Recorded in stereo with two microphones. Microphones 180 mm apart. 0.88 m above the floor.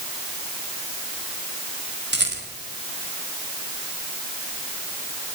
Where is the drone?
I don't hear a drone.